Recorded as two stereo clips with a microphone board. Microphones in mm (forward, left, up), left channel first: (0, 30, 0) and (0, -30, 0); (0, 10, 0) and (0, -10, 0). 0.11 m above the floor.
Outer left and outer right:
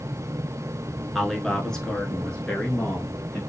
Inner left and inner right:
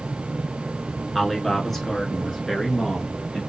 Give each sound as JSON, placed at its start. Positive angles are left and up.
{"t": 1.1, "sound": "a man speaking", "side_deg": 5, "distance_m": 1.1}